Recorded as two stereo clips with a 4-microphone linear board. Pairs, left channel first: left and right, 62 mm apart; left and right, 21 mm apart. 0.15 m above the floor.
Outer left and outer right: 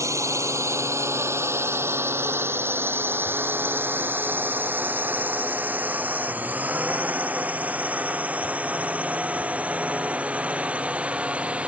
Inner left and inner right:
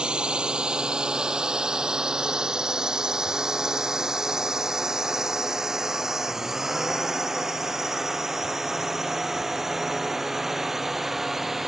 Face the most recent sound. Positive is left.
turn(degrees=-20)  # may be behind; listen again after turning